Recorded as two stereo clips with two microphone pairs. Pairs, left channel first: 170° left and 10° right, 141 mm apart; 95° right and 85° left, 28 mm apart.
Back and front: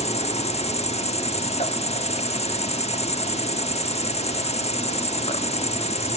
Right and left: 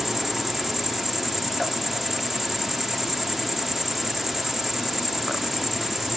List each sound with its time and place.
0.0 s an insect: 165° left, 1.4 m